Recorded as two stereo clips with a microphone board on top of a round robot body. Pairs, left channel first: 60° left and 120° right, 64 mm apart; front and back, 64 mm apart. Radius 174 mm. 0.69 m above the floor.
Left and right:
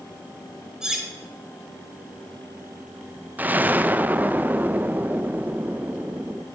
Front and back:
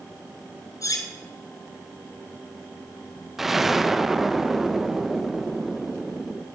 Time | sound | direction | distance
0.8 | cutlery clinking | 35° right | 1.8 m
3.4 | an explosion | 100° right | 1.1 m